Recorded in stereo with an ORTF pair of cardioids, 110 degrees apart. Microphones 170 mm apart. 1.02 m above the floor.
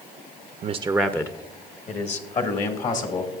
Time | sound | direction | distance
0.6 | a man speaking | 45° right | 0.6 m